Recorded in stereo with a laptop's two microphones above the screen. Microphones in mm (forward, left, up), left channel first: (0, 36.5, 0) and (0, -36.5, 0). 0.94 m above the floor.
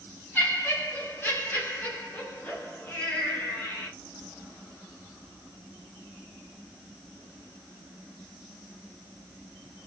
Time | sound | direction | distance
0.3 | laughter | 30° left (ahead or behind) | 1.6 m